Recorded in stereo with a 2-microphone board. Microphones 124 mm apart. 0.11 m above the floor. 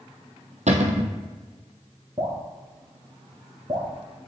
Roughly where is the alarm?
No alarm in this recording.